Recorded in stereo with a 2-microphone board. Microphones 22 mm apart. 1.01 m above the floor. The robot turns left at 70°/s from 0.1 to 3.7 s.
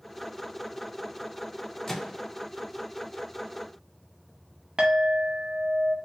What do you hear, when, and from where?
1.9 s a microwave: 20° left (ahead or behind), 0.5 m; by 2.2 s 5° right (ahead or behind), 0.5 m
4.8 s a clink: 50° right (ahead or behind), 0.9 m